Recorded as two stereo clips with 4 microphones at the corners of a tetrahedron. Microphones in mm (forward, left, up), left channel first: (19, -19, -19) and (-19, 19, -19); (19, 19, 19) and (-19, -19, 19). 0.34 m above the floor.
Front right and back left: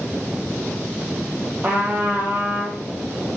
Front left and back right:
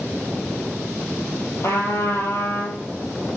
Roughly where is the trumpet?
Left.